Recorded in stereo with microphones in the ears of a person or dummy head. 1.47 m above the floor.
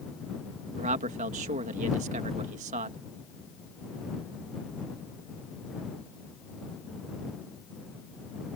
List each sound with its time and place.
0.8 s a man speaking: 40° right (ahead or behind)